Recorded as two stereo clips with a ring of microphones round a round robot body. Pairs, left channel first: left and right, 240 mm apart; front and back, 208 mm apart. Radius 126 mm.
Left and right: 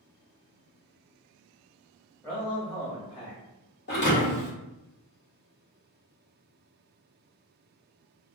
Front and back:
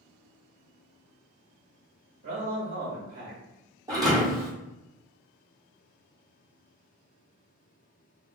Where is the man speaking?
175° left, 1.1 m.